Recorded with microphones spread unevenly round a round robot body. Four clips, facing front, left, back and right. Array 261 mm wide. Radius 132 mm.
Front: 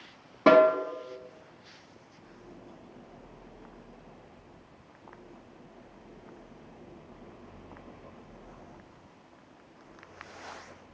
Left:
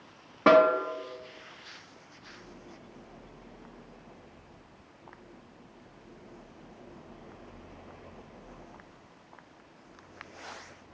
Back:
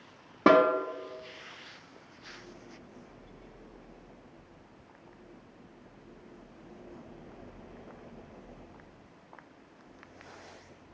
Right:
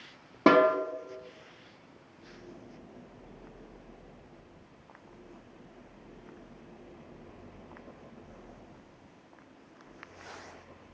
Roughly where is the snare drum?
Behind right.